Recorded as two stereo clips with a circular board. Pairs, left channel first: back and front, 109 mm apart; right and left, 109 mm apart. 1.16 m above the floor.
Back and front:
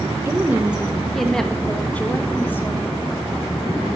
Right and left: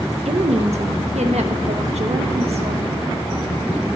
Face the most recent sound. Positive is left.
turn(degrees=115)